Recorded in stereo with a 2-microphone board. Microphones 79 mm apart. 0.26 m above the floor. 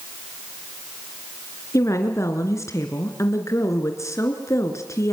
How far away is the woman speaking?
About 3 m.